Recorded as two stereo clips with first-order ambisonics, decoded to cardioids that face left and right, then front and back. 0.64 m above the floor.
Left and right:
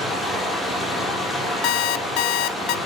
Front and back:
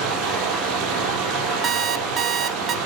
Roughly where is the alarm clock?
Behind left.